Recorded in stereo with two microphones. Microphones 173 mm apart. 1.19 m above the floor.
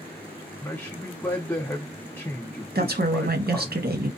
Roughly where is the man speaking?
Centre.